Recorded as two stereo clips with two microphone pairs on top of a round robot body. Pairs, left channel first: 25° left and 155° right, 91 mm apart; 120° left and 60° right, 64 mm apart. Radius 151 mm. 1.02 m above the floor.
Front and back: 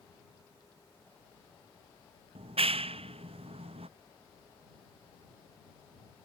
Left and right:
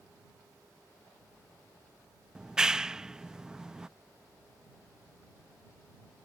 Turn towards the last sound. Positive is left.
turn(degrees=-140)